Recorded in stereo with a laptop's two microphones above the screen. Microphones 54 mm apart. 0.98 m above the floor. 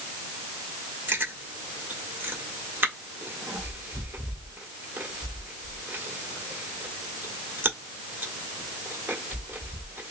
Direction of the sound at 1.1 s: 40° right (ahead or behind).